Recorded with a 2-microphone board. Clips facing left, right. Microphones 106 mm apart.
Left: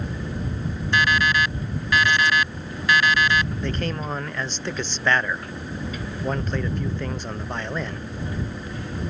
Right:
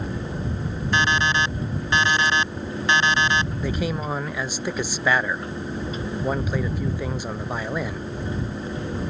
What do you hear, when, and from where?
0.9 s an alarm clock: 30° right (ahead or behind)
3.6 s a man speaking: 10° right (ahead or behind)